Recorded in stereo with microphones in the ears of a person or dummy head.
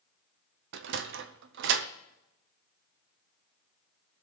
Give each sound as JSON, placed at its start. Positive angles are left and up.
{"t": 0.7, "sound": "a sliding door", "side_deg": -70, "distance_m": 0.8}